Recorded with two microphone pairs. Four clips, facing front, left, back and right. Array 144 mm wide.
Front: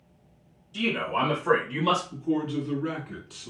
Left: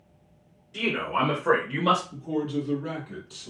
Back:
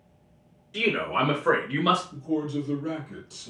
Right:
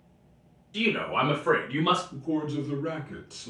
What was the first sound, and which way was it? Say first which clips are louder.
A man speaking: even, back 1 dB; 175° right.